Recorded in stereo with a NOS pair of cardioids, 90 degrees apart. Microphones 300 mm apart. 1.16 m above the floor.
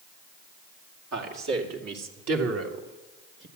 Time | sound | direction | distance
1.1 | a man speaking | 65° right | 3 m